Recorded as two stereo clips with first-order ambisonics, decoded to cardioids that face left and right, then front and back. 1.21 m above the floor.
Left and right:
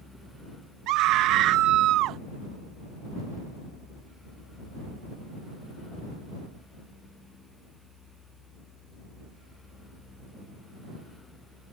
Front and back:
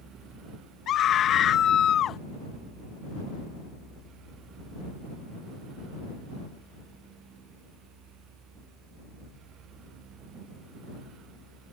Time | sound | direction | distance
0.9 | a scream | 55° right | ?